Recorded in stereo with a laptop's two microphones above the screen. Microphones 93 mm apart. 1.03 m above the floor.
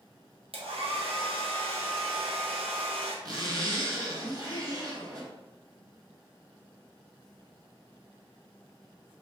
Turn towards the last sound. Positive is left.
turn(degrees=-40)  # may be behind; listen again after turning